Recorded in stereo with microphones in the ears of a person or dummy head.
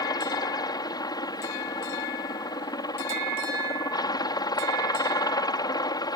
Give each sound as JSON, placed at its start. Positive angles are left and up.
{"t": 0.0, "sound": "a helicopter", "side_deg": 20}